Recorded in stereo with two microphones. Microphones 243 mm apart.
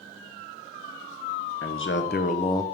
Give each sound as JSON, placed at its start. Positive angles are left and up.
{"t": 1.6, "sound": "a man speaking", "side_deg": 60, "distance_m": 0.9}